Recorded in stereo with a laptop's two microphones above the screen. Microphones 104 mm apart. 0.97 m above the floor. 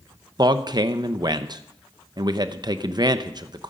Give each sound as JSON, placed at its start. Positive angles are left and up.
{"t": 0.4, "sound": "a man speaking", "side_deg": -40, "distance_m": 0.8}